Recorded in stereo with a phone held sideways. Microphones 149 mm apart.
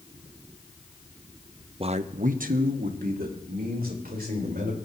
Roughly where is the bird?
No bird in this recording.